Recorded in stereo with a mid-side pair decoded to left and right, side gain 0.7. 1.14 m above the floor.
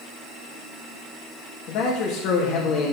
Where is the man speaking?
60° left, 1.9 m.